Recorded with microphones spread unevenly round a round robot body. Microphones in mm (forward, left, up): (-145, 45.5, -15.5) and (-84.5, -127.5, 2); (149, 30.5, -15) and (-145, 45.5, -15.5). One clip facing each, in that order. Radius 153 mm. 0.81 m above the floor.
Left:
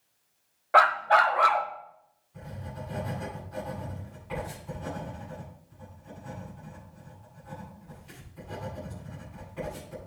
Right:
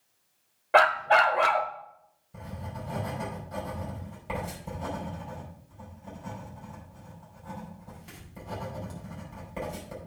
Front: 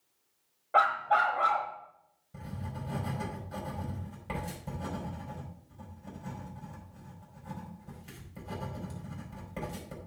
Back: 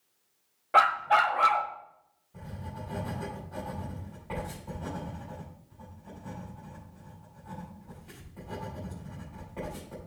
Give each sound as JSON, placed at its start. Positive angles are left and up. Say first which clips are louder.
{"t": 0.7, "sound": "a dog barking", "louder": "right 1 dB, back 2 dB", "azimuth_deg": -135, "distance_m": 1.1}
{"t": 2.3, "sound": "writing", "louder": "right 1 dB, front 1 dB", "azimuth_deg": -45, "distance_m": 5.5}